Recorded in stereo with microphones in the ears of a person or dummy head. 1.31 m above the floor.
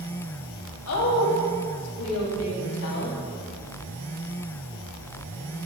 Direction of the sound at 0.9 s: 90° left.